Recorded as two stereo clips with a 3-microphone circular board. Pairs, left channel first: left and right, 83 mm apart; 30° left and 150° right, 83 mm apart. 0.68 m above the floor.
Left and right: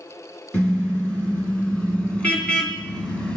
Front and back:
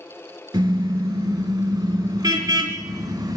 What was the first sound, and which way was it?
A car horn, 165° left.